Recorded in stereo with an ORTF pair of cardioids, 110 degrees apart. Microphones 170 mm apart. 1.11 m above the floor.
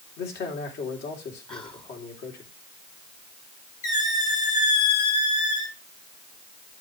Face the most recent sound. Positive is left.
turn(degrees=45)